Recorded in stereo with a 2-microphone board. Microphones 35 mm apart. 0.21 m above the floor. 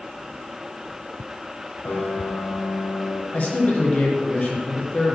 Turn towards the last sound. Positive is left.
turn(degrees=50)  # may be behind; listen again after turning